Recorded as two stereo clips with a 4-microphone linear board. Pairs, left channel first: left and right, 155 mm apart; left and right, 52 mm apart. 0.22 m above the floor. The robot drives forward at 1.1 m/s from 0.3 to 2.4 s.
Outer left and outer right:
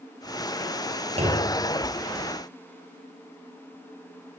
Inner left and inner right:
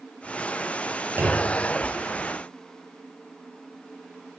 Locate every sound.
1.2 s a clunk: 40° right (ahead or behind), 5 m; by 1.6 s 45° right (ahead or behind), 4.5 m